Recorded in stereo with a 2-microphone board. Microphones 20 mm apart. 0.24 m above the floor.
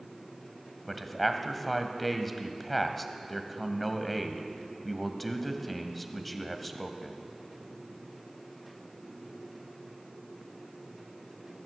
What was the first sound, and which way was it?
A man speaking, 5° left (ahead or behind).